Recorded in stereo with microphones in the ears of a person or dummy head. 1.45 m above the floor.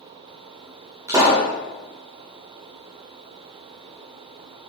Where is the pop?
15° right (ahead or behind), 1.6 m.